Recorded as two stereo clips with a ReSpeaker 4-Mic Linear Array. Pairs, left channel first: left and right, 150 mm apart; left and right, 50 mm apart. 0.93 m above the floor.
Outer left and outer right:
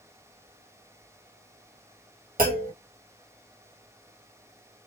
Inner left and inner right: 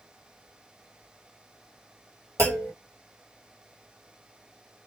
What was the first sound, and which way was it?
A clunk, 70° right (ahead or behind).